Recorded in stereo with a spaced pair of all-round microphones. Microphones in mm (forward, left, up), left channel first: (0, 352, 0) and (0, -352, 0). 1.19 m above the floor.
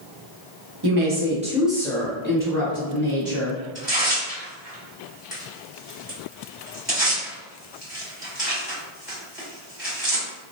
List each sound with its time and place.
0.8 s a woman speaking: 35° right (ahead or behind), 0.7 m; by 3.6 s 30° left (ahead or behind), 1.7 m
3.8 s tearing paper: centre (ahead or behind), 1.9 m